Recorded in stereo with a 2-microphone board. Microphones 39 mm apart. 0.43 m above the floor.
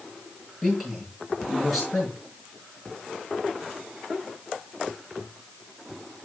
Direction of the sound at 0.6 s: 5° right (ahead or behind).